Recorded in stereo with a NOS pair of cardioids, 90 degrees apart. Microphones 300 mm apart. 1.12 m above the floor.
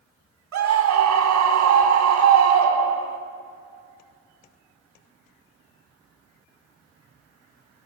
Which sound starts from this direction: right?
A scream, at 0.5 s.